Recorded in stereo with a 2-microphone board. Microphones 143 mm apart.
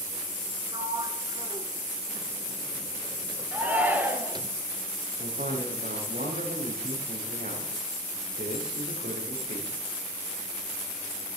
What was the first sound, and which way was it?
A sliding door, 30° right (ahead or behind).